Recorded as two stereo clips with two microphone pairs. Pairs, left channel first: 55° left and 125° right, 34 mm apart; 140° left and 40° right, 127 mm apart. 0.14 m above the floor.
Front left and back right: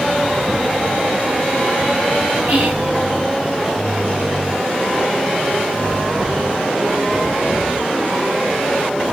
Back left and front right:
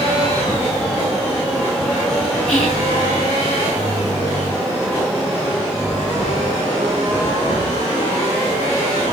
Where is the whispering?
135° right, 1.8 m.